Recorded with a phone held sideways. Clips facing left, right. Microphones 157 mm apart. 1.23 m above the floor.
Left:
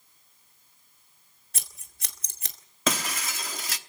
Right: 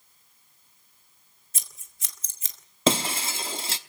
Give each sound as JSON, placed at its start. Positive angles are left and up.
{"t": 1.5, "sound": "scissors", "side_deg": 65, "distance_m": 2.0}
{"t": 2.9, "sound": "breaking glass", "side_deg": -30, "distance_m": 0.8}